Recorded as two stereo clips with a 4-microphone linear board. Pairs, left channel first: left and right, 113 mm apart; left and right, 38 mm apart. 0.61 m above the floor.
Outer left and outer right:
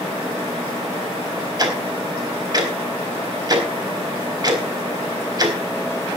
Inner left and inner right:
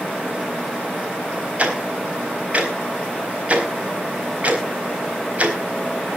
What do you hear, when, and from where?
1.6 s ticking: 35° right (ahead or behind), 4 m